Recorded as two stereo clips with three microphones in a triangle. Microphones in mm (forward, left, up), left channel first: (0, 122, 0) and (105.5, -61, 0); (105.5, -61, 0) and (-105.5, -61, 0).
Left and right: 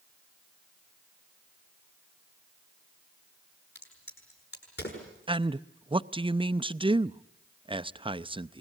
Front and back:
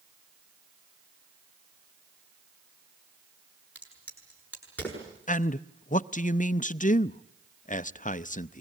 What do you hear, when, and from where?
3.8 s a crack: 80° left, 8 m
5.3 s a man speaking: 10° right, 0.5 m